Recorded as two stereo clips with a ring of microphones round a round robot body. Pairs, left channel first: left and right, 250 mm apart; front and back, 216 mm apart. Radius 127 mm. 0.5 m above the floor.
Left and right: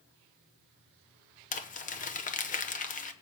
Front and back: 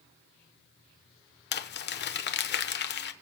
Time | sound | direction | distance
1.5 | crumpling | 30° left | 1.0 m